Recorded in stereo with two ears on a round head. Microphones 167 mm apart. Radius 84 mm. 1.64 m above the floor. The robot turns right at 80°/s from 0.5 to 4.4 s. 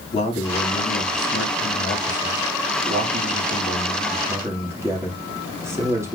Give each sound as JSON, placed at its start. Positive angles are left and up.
{"t": 0.1, "sound": "a man speaking", "azimuth_deg": 35, "distance_m": 3.0}